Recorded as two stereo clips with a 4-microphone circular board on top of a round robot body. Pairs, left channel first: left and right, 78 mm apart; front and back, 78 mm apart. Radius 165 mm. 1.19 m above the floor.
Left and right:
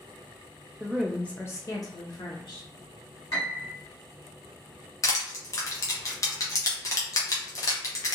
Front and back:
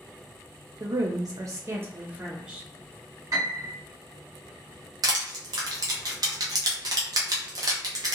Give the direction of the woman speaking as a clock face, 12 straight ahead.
5 o'clock.